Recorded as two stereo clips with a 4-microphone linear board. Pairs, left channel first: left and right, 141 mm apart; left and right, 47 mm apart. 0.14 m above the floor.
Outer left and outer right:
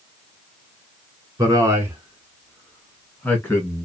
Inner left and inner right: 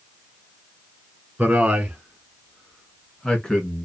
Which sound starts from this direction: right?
A man speaking, at 1.4 s.